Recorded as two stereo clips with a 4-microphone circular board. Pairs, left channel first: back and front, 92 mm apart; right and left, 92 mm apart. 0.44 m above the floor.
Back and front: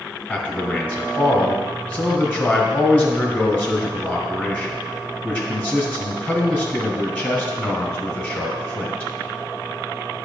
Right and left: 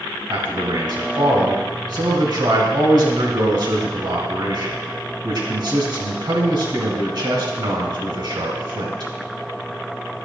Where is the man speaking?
115° left, 1.8 m.